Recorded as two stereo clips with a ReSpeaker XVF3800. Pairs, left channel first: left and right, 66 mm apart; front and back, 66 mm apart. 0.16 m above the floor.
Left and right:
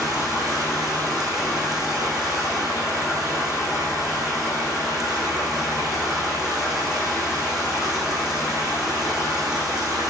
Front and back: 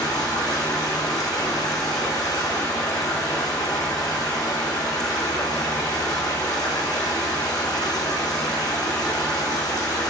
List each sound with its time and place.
0.0 s running water: 10° right, 6 m